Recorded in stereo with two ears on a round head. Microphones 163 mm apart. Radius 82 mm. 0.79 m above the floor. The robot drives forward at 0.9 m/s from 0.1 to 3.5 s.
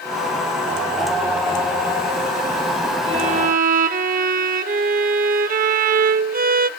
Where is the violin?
30° right (ahead or behind), 0.7 m; by 6.7 s 45° right (ahead or behind), 0.5 m.